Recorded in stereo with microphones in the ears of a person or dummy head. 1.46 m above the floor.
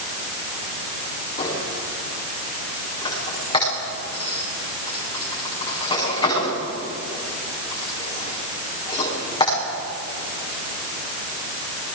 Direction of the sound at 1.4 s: 30° left (ahead or behind).